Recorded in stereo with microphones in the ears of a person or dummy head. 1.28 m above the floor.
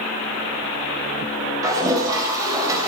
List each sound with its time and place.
1.6 s a toilet flushing: 15° right (ahead or behind), 3 m